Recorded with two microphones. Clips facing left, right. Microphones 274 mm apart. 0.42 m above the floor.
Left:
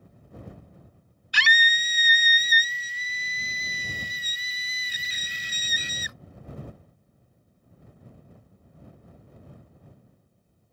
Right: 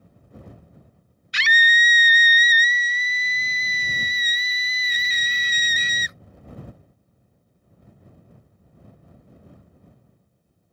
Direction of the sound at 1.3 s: 25° right (ahead or behind).